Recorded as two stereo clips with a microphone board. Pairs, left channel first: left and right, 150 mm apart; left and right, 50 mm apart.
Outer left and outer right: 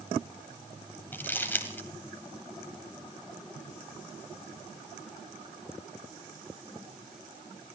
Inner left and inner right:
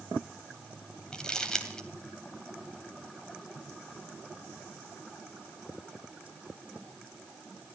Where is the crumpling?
15° left (ahead or behind), 2 m.